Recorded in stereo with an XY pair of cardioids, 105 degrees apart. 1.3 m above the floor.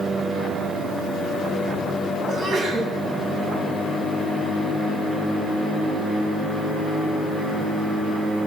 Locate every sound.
2.3 s a sneeze: 60° right, 9.5 m